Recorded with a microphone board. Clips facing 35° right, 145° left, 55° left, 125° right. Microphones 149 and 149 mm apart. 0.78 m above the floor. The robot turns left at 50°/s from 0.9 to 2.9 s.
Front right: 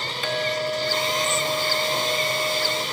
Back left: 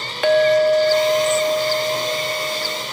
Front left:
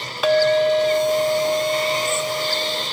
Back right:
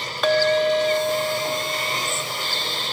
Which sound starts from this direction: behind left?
A clink, at 0.2 s.